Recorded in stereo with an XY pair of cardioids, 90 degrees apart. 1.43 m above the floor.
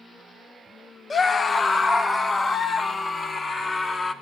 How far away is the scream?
About 0.9 m.